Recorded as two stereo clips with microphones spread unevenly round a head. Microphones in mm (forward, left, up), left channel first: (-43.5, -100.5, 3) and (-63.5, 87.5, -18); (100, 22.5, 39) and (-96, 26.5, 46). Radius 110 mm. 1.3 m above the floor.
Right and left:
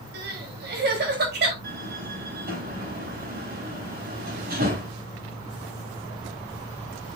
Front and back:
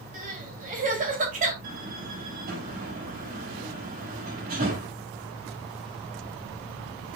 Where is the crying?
130° left, 3 m.